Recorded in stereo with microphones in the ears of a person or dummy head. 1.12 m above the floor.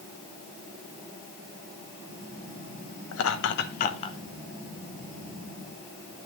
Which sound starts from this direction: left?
Laughter, at 3.1 s.